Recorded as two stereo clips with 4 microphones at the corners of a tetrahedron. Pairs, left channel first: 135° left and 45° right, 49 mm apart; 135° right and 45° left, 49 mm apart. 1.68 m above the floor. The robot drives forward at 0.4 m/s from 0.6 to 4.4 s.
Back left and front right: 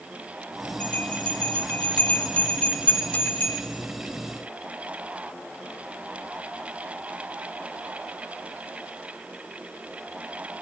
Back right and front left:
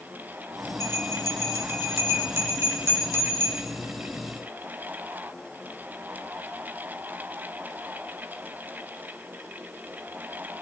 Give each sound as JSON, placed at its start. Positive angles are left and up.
{"t": 0.8, "sound": "a bell", "azimuth_deg": 70, "distance_m": 6.5}